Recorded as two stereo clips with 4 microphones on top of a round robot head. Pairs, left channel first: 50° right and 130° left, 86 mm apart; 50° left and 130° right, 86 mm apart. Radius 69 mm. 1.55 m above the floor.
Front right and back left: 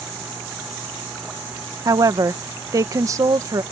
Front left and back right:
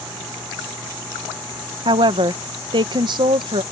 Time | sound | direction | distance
1.9 | a woman speaking | 170° right | ?